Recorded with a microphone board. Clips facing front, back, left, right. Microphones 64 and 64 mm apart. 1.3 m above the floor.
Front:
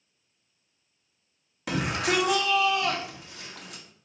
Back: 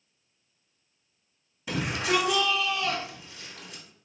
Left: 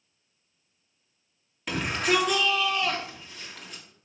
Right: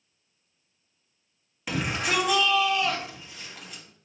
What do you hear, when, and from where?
1.7 s a shout: 5° right, 1.8 m